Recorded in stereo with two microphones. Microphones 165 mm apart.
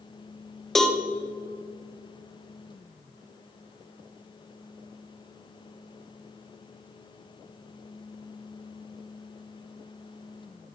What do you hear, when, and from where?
0.8 s a cowbell: centre (ahead or behind), 0.5 m